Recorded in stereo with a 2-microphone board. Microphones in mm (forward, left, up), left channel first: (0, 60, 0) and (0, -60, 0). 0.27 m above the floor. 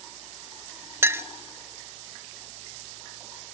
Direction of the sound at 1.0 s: 20° right (ahead or behind).